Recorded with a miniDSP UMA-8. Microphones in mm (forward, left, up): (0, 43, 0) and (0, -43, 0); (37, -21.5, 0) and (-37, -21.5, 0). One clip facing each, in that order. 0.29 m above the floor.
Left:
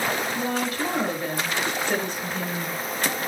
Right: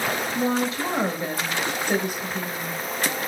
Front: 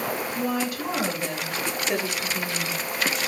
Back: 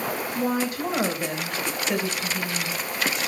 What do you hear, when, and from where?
0.3 s a woman speaking: 145° right, 1.3 m; by 2.8 s 5° left, 1.0 m